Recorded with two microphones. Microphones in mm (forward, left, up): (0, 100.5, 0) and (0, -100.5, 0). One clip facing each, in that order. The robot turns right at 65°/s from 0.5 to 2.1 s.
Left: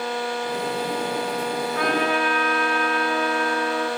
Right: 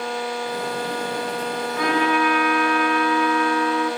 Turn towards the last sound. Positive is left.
turn(degrees=45)  # may be behind; listen again after turning